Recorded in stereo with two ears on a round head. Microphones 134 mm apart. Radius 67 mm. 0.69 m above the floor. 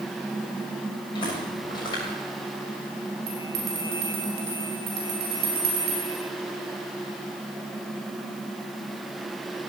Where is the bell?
75° right (ahead or behind), 6 m.